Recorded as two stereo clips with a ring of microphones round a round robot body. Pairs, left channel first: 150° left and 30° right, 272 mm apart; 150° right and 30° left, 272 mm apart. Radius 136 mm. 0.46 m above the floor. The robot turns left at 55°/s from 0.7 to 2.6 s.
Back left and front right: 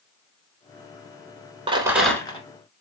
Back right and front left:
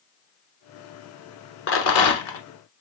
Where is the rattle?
100° right, 1.1 m; by 2.4 s 145° right, 1.1 m.